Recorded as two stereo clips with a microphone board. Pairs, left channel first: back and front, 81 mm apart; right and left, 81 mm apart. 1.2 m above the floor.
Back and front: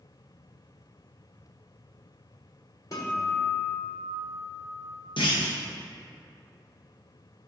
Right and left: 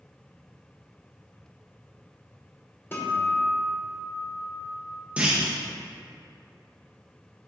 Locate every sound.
2.9 s a guitar: 145° right, 1.3 m
5.2 s a clunk: 165° left, 1.2 m